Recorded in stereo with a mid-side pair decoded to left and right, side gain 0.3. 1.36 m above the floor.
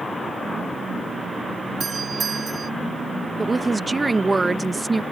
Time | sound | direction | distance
1.8 | a doorbell | 55° right | ?
3.4 | a woman speaking | 30° right | ?